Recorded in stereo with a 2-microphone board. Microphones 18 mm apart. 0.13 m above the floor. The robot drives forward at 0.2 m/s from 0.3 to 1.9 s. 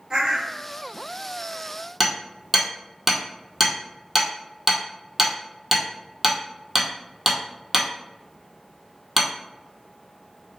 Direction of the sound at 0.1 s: 40° right (ahead or behind).